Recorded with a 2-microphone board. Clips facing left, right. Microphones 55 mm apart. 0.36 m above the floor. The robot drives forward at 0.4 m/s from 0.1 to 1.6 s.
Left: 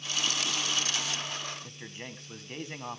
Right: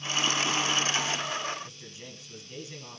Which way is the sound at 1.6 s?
55° left (ahead or behind).